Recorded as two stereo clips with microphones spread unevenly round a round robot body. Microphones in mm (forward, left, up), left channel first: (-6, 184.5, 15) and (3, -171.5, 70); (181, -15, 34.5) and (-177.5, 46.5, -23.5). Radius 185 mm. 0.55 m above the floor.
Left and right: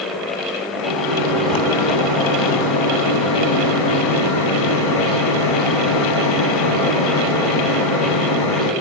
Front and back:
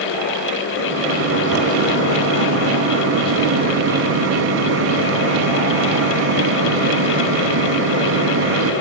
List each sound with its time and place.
0.8 s a microwave: 115° left, 3.5 m